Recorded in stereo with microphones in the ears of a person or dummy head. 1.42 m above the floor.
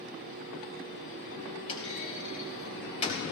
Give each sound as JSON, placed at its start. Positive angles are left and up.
{"t": 1.7, "sound": "a clunk", "side_deg": 35, "distance_m": 4.0}